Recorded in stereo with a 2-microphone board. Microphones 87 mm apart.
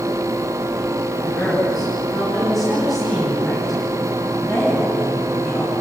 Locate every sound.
1.2 s a woman speaking: centre (ahead or behind), 9.5 m